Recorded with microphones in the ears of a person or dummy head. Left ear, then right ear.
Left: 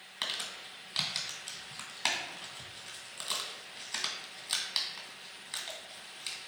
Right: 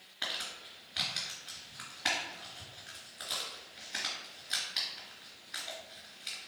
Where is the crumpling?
60° left (ahead or behind), 1.8 m.